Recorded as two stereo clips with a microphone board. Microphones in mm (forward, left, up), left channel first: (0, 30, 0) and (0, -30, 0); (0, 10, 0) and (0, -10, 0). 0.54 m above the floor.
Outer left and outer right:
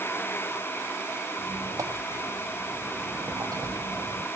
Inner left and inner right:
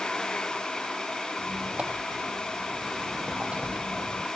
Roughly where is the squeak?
Right.